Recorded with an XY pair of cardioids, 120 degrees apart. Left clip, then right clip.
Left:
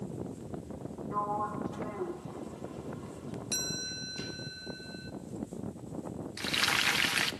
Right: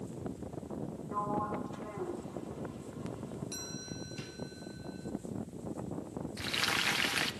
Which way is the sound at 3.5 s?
60° left.